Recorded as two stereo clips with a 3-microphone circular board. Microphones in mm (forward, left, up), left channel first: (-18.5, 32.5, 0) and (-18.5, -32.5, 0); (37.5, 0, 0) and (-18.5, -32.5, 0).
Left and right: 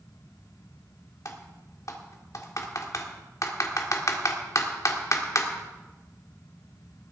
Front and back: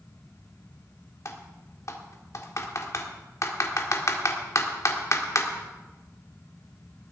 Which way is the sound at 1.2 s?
60° left.